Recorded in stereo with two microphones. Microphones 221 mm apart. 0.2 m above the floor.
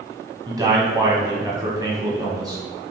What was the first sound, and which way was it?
A man speaking, 20° right (ahead or behind).